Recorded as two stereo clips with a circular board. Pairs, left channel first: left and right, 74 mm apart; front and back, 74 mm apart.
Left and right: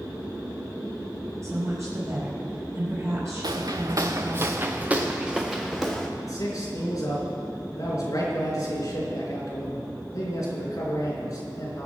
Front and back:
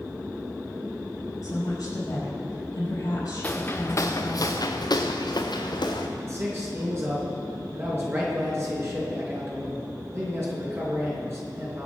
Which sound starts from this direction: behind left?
A man speaking, at 6.2 s.